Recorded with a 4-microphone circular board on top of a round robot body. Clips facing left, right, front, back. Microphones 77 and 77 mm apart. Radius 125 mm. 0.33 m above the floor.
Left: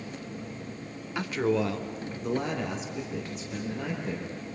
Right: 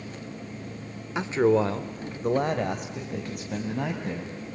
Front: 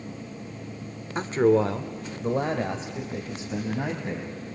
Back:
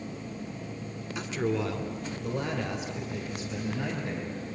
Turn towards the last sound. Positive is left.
turn(degrees=-65)